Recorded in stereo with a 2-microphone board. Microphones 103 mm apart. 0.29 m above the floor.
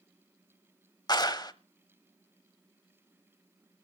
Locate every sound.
1.1 s a clap: 45° left (ahead or behind), 0.9 m